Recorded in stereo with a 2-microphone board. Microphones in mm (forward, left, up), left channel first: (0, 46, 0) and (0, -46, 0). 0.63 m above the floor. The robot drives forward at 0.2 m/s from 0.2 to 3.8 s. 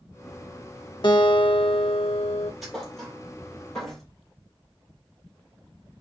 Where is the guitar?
50° left (ahead or behind), 0.6 m; by 2.5 s 80° left, 0.5 m.